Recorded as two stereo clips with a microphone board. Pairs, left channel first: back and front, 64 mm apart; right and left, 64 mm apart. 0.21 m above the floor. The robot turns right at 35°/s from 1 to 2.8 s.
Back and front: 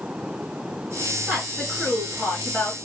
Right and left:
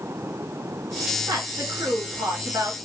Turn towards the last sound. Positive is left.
turn(degrees=125)